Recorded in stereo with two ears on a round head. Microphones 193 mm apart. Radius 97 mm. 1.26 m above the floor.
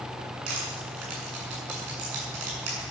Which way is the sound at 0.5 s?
75° right (ahead or behind).